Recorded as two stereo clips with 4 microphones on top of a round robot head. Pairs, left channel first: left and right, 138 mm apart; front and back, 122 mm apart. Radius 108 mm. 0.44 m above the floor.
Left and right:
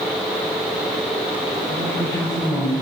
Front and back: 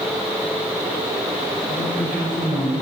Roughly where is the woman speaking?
Behind left.